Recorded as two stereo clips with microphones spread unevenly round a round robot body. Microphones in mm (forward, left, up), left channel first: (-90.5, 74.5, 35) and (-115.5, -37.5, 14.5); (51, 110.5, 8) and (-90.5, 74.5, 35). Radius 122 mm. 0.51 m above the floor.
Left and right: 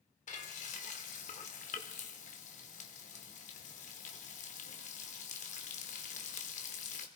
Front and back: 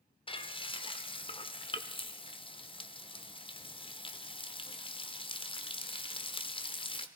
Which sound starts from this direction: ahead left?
Frying, at 0.3 s.